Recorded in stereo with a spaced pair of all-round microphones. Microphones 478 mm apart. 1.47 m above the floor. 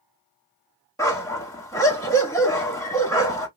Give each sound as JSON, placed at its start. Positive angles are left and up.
{"t": 1.0, "sound": "a dog barking", "side_deg": 5, "distance_m": 1.1}